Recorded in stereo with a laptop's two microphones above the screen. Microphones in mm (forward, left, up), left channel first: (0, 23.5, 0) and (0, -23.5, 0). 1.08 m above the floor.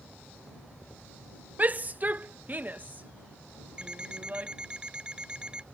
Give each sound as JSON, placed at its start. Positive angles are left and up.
{"t": 1.6, "sound": "a shout", "side_deg": -35}
{"t": 3.8, "sound": "an alarm clock", "side_deg": -20}